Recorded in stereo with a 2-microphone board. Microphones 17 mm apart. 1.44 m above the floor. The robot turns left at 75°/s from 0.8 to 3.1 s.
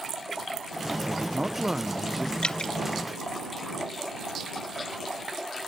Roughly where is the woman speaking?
Right.